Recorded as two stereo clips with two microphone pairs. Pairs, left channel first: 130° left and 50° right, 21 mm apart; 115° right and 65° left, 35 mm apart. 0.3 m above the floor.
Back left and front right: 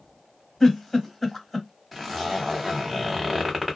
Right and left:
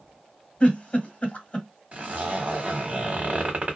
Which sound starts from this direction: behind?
A giggle, at 0.6 s.